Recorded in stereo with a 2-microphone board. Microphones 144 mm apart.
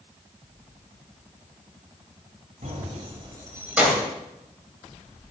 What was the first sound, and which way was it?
Keys jangling, 60° right (ahead or behind).